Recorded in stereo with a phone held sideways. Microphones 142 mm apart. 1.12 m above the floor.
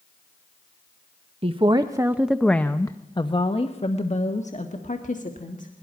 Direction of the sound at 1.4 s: 45° right (ahead or behind).